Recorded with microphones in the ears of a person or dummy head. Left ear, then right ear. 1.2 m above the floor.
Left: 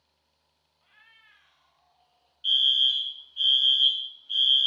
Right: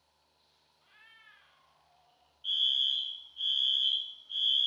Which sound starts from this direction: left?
A fire alarm, at 2.4 s.